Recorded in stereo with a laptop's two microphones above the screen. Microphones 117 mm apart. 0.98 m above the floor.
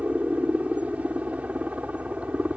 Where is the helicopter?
10° right (ahead or behind).